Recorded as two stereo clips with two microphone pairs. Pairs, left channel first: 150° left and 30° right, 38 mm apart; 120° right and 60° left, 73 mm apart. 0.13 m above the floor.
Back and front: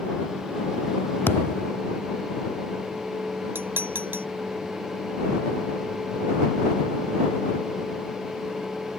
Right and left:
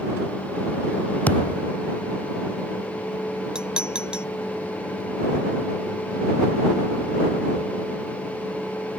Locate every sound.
1.3 s a thud: 170° left
3.5 s dishes clattering: 15° right